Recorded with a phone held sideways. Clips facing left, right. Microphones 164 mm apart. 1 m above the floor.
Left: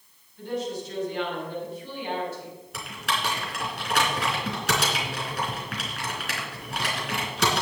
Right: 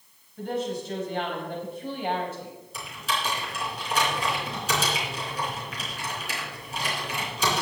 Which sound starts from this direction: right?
A woman speaking, at 0.4 s.